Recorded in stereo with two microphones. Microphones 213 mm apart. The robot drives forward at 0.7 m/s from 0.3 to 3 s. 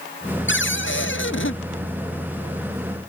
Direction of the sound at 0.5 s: 65° left (ahead or behind).